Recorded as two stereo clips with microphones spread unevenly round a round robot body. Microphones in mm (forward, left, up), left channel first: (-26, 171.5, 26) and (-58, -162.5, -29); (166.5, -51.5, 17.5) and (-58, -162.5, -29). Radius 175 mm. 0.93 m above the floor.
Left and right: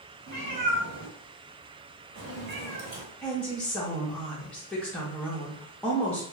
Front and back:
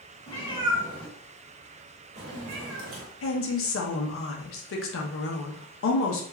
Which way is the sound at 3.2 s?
5° right.